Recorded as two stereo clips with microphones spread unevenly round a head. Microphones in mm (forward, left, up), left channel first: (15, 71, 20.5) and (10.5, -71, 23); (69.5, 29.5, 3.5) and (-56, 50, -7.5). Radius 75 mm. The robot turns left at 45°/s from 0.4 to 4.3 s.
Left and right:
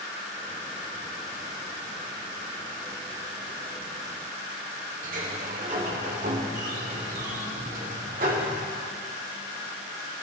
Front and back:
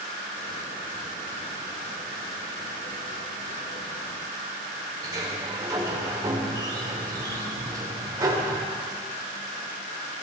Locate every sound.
5.0 s a sliding door: 120° right, 1.3 m